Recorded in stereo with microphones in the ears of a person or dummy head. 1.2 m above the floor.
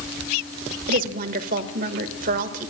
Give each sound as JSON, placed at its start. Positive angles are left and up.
{"t": 0.9, "sound": "a woman speaking", "side_deg": -45, "distance_m": 1.5}